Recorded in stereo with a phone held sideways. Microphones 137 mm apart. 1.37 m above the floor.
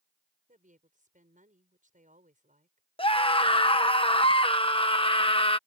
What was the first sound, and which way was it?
A woman speaking, 75° right (ahead or behind).